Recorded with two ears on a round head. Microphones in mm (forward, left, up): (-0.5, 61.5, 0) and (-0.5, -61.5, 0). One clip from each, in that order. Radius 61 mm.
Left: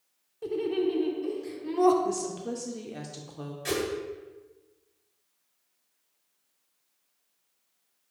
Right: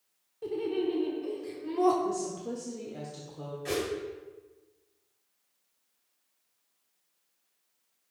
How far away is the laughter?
About 0.9 m.